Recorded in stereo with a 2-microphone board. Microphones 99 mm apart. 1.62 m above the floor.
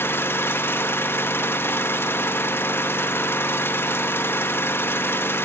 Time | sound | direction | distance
0.0 | an engine running | 25° left (ahead or behind) | 1.0 m